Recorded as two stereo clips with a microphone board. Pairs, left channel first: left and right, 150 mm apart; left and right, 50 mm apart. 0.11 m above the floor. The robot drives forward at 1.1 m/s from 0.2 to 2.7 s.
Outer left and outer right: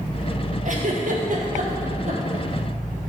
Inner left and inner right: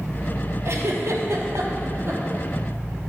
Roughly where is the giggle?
Right.